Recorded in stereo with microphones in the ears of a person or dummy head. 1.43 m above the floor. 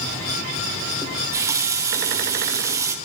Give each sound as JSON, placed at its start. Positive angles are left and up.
{"t": 1.0, "sound": "a running tap", "side_deg": -15, "distance_m": 1.2}